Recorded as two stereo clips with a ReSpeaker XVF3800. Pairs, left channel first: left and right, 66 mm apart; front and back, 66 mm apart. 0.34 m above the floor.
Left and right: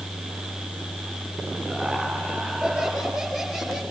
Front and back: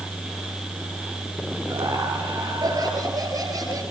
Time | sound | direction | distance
1.7 | laughter | 170° right | 7 m